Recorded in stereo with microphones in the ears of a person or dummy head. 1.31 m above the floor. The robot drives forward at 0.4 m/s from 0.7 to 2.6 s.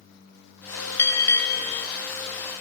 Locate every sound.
1.0 s a bell: 15° left (ahead or behind), 0.9 m; by 1.9 s 10° left (ahead or behind), 1.3 m